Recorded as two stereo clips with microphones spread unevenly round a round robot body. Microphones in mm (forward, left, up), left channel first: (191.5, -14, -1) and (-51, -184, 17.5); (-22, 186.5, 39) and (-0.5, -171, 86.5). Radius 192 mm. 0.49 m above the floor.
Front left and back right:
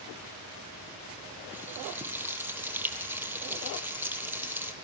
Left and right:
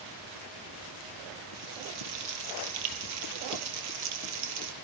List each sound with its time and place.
1.5 s frying: 60° right, 3 m